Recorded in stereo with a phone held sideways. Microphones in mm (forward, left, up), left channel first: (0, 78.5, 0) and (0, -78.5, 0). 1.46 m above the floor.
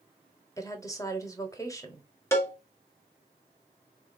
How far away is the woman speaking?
About 0.8 m.